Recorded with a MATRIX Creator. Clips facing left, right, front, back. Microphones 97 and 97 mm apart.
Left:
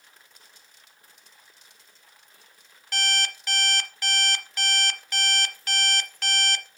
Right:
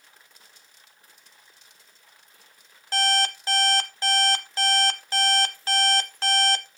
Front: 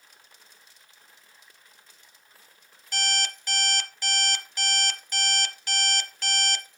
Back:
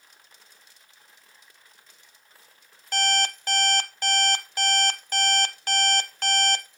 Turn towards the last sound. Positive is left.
turn(degrees=-145)